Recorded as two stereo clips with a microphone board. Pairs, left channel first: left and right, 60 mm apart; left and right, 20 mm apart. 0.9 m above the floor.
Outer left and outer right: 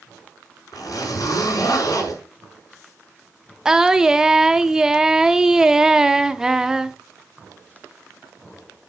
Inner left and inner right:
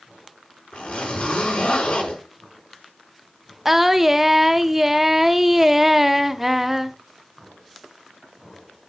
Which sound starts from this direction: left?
A zipper, at 0.7 s.